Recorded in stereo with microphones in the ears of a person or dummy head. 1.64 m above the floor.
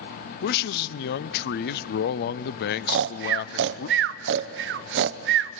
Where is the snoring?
70° right (ahead or behind), 0.7 m.